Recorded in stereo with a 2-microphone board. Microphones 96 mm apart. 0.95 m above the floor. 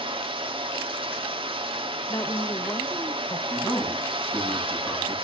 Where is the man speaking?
25° left (ahead or behind), 7 m.